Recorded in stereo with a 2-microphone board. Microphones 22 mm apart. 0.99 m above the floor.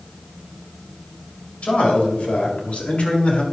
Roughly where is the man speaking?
Left.